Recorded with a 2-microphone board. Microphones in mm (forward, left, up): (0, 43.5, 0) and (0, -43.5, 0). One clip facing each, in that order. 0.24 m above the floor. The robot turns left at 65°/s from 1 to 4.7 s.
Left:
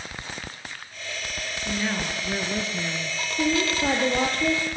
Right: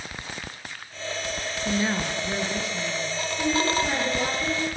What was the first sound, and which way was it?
A woman speaking, 150° right.